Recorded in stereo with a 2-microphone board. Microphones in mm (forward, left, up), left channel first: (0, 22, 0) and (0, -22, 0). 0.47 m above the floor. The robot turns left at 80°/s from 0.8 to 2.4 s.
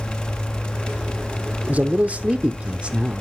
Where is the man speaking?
70° right, 0.8 m; by 3.2 s 130° right, 0.8 m.